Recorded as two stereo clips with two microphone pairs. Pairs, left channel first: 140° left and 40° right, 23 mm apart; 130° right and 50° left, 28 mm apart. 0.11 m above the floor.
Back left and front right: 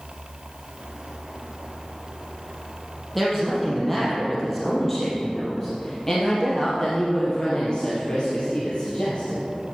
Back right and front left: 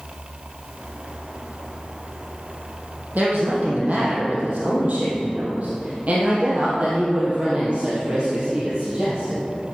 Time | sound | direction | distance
3.1 | a woman speaking | 50° left | 4 m